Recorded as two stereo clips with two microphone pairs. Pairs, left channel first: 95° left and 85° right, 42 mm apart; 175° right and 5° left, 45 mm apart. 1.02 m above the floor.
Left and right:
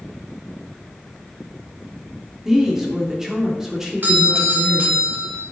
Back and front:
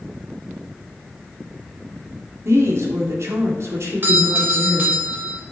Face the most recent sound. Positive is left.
turn(degrees=-40)